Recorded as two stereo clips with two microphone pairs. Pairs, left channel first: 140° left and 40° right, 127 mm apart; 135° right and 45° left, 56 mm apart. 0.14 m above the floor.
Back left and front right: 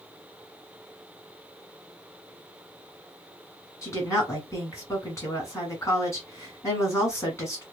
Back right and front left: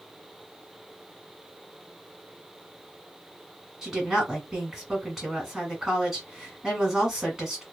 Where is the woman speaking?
115° left, 1.6 m.